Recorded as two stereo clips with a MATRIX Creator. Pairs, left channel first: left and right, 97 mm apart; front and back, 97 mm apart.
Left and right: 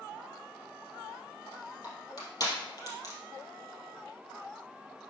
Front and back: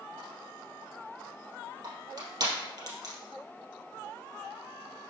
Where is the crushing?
135° left, 3 m.